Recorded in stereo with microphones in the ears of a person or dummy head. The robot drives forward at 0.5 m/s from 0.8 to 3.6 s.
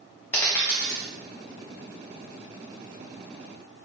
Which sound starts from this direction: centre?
A dropped coin, at 0.3 s.